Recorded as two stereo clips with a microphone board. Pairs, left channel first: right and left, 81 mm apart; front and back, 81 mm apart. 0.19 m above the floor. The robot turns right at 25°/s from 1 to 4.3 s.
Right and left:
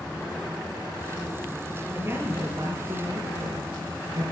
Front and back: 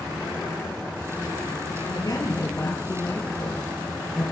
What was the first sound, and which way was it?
A woman speaking, 30° left.